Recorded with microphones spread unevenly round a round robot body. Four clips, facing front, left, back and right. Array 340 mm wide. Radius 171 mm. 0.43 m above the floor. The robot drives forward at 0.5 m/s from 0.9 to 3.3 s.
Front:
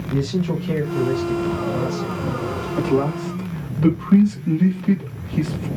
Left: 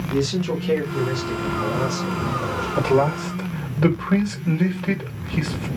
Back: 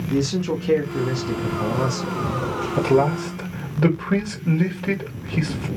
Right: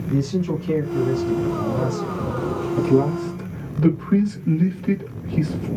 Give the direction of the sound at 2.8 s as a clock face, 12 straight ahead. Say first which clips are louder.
Even, back 2 dB; 8 o'clock.